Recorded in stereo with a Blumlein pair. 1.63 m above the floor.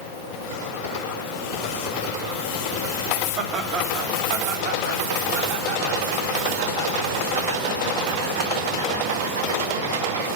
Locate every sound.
3.4 s laughter: 30° right, 3.5 m; by 10.3 s 70° right, 7 m